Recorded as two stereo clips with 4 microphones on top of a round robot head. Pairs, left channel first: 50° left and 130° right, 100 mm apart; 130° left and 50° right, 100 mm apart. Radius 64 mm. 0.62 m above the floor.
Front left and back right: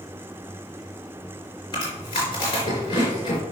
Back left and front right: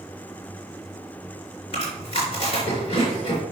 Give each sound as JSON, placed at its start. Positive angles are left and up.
{"t": 1.7, "sound": "chewing", "azimuth_deg": 100, "distance_m": 4.0}